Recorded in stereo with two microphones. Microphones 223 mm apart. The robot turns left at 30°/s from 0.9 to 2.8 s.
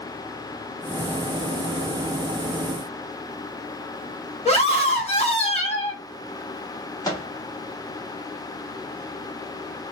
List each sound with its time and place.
4.5 s a scream: 30° left (ahead or behind), 1.0 m
7.0 s a microwave: 15° left (ahead or behind), 0.9 m